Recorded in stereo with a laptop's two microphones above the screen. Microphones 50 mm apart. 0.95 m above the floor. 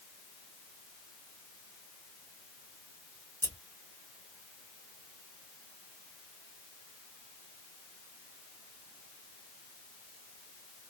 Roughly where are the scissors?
Left.